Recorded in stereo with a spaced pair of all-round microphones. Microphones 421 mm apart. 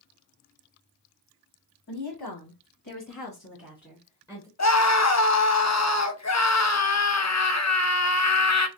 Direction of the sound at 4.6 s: 40° left (ahead or behind).